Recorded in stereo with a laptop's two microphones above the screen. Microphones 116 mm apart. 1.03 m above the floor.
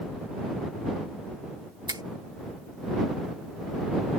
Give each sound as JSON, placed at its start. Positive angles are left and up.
{"t": 1.9, "sound": "a finger snap", "side_deg": -40}